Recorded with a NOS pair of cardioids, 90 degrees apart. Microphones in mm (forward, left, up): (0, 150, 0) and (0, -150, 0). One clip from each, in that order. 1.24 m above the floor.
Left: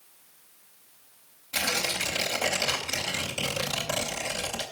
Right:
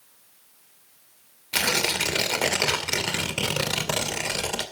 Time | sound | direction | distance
1.5 | tearing paper | 50° right | 2.5 m